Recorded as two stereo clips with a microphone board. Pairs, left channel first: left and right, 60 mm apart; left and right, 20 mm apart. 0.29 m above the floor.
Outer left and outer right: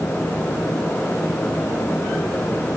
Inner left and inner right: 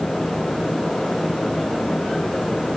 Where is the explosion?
I don't hear an explosion.